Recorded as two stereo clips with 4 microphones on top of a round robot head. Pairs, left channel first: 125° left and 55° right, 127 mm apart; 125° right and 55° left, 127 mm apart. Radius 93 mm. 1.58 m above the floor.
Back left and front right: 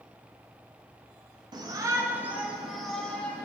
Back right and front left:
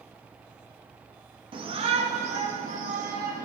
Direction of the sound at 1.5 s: 5° left.